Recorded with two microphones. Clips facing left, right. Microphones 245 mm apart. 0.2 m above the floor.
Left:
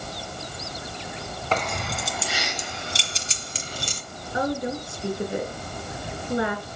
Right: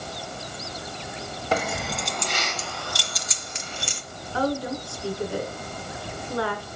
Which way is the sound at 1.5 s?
10° right (ahead or behind).